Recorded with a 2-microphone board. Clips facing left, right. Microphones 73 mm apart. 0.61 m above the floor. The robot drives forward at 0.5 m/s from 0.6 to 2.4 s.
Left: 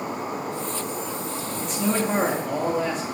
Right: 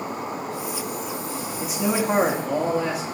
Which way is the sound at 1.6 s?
5° right (ahead or behind).